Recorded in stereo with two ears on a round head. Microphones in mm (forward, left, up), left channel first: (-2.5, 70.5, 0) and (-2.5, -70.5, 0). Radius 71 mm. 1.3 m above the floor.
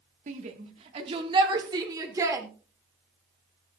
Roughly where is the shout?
Right.